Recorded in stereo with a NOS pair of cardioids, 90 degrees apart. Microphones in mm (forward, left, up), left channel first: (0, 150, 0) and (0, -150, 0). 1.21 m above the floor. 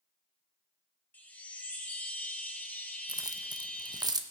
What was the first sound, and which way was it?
A chime, 5° left.